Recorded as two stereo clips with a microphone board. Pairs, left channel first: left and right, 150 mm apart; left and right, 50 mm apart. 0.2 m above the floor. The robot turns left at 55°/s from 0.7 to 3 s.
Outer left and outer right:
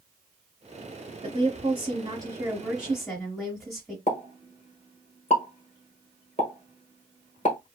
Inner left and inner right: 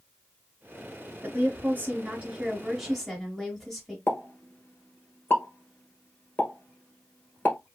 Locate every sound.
1.2 s a woman speaking: 85° right, 1.2 m; by 4.0 s straight behind, 1.2 m
4.1 s a pop: 50° left (ahead or behind), 1.1 m